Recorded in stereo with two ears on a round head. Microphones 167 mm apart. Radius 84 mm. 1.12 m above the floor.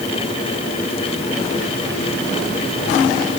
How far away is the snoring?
No snoring in this recording.